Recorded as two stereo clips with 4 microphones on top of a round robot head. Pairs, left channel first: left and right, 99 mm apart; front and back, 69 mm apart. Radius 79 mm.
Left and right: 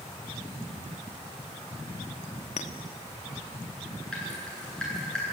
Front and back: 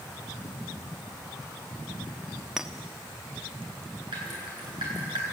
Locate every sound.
2.6 s a clink: 95° left, 1.1 m
4.1 s dripping: 170° left, 10 m